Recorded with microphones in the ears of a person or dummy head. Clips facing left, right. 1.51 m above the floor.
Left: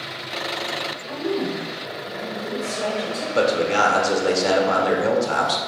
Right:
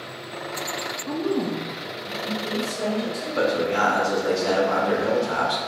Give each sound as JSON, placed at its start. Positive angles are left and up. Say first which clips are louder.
{"t": 1.1, "sound": "a woman speaking", "louder": "right 1 dB", "side_deg": -70, "distance_m": 0.6}
{"t": 3.4, "sound": "a man speaking", "louder": "left 3 dB", "side_deg": 65, "distance_m": 1.1}